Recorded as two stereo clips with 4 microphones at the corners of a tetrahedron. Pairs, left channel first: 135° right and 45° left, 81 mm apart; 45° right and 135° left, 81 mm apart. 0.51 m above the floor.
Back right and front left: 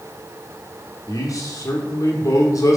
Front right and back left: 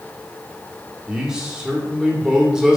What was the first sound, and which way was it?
A man speaking, 145° right.